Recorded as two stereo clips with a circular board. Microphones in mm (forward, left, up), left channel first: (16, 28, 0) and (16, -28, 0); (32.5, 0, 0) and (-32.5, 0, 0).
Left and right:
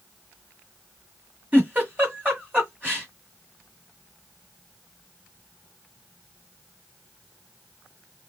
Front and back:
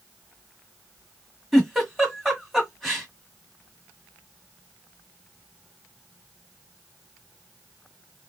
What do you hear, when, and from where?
1.5 s a giggle: 90° right, 1.7 m